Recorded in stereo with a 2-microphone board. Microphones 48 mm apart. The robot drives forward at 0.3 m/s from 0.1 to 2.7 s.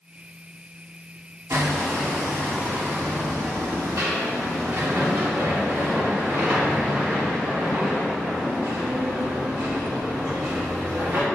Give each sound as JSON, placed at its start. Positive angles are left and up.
{"t": 1.5, "sound": "hammering", "side_deg": -80, "distance_m": 2.0}